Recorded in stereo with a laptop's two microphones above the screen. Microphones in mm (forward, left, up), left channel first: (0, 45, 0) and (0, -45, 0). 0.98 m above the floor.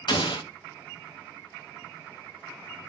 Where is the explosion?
65° left (ahead or behind), 0.7 m.